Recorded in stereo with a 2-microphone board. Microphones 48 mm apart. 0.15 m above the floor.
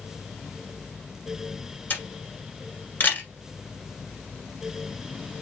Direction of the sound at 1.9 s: 40° left (ahead or behind).